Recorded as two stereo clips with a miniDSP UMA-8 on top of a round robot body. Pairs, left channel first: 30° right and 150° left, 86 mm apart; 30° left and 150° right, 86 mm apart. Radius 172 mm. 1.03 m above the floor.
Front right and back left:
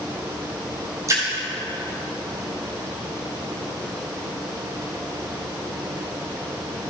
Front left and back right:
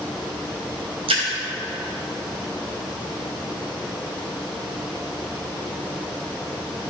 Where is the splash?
155° right, 0.5 m.